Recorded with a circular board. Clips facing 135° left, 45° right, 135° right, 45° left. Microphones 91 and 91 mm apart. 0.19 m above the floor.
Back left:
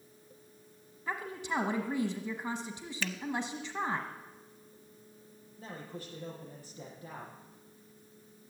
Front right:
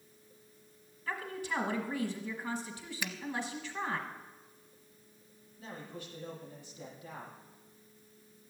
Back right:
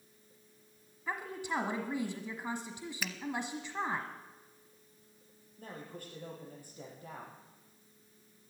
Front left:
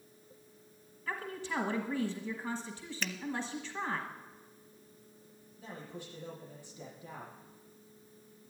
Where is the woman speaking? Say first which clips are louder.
Back left 1 dB, back right 1 dB; 170° left, 1.2 m.